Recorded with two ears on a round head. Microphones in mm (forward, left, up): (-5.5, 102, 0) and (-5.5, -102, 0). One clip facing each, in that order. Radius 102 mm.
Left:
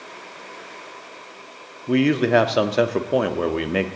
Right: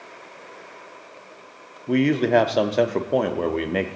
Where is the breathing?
No breathing in this recording.